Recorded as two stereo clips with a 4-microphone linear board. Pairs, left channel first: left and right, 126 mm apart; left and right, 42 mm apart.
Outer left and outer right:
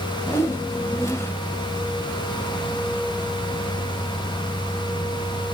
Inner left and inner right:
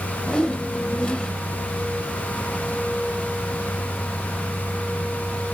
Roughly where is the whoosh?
Left.